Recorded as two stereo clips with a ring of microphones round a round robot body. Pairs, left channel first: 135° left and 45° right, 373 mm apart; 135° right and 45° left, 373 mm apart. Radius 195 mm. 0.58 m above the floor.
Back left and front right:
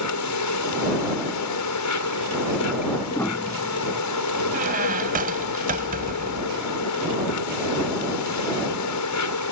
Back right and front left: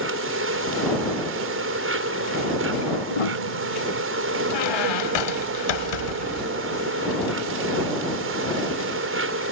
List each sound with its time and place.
0.0 s an insect: 100° left
3.1 s a piano: 140° right
4.5 s a squeak: 115° right